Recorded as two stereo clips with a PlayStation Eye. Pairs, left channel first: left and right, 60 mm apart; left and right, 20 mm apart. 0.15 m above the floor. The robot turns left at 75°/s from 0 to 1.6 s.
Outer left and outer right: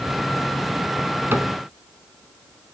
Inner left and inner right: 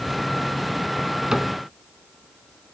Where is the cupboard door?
35° right (ahead or behind), 0.6 m; by 1.5 s 30° right (ahead or behind), 0.6 m.